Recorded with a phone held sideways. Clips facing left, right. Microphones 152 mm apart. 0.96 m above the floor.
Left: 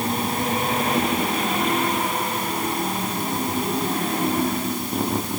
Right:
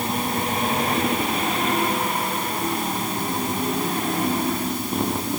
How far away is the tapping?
I don't hear tapping.